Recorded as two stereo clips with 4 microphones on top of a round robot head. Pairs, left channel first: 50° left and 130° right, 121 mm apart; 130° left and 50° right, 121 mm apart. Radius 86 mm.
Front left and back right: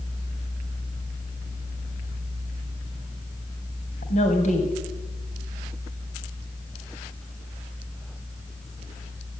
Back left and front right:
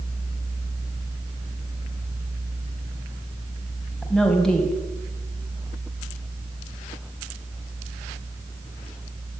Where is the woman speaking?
45° left, 3 m.